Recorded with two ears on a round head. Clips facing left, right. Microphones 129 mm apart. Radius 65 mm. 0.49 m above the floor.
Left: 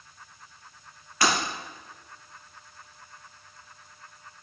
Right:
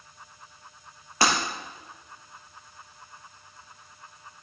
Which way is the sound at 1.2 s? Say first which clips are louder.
Right 1 dB; 25° right (ahead or behind).